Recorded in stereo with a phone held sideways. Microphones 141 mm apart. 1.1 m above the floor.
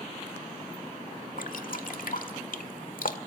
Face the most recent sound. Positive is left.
turn(degrees=70)  # may be behind; listen again after turning